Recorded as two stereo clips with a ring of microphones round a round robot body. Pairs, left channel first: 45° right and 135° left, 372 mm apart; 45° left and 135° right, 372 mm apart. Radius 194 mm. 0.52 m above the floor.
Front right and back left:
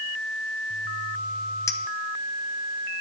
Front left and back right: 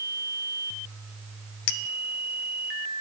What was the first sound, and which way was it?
A clink, 35° left.